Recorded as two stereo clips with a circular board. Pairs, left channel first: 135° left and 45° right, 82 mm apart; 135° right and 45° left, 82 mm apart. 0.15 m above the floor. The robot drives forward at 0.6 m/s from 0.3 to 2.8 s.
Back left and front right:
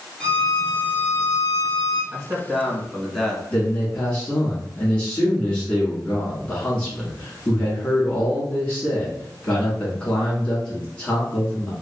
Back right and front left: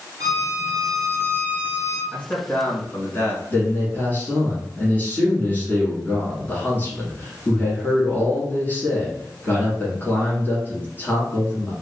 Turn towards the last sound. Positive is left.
turn(degrees=-165)